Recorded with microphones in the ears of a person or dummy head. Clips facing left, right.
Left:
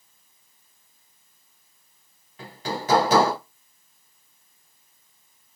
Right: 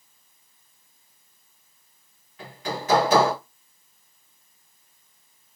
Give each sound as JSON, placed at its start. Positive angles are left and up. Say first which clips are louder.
{"t": 2.4, "sound": "hammering", "louder": "left 1 dB", "side_deg": 25, "distance_m": 2.0}